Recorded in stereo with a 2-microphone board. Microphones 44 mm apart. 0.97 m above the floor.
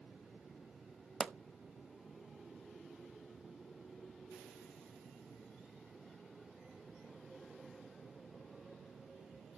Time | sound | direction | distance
1.2 | a pop | 10° right (ahead or behind) | 0.5 m